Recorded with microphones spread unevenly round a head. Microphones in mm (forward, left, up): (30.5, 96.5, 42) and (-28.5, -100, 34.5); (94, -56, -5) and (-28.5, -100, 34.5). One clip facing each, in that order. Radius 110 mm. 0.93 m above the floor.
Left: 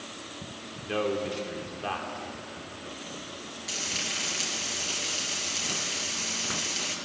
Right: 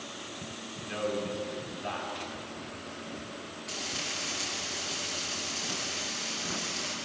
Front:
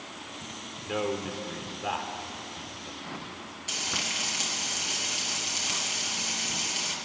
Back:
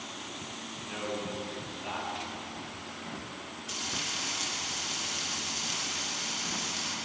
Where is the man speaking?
50° left, 3 m.